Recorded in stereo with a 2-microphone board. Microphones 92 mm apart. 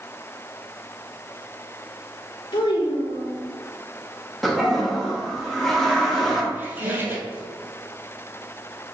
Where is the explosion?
I don't hear an explosion.